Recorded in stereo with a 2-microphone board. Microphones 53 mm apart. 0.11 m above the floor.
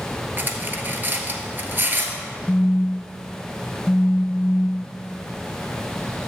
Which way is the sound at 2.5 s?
40° left (ahead or behind).